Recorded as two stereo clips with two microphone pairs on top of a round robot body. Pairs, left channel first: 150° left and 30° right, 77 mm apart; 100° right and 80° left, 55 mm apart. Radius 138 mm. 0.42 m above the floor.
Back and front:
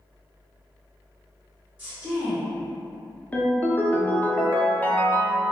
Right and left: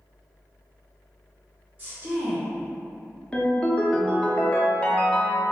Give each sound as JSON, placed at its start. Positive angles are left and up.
{"t": 1.8, "sound": "a woman speaking", "azimuth_deg": 40, "distance_m": 1.4}
{"t": 3.3, "sound": "a ringtone", "azimuth_deg": -165, "distance_m": 0.7}